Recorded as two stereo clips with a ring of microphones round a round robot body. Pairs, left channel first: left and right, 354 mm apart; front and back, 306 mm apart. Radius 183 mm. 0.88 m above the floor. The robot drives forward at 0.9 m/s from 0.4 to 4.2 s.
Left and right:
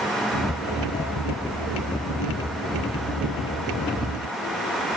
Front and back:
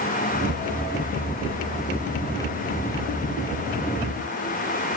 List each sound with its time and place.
Only background noise.